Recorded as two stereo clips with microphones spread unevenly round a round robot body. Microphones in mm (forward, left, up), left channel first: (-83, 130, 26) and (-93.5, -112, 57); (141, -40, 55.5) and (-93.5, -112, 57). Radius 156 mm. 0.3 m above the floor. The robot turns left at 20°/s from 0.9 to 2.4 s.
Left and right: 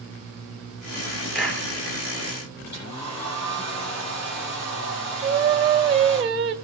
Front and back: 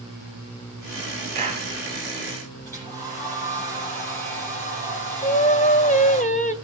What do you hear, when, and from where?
1.4 s a clap: 130° left, 5 m; by 1.7 s 120° left, 5 m
2.6 s a hair dryer: 100° left, 9.5 m
5.2 s singing: 25° right, 2.0 m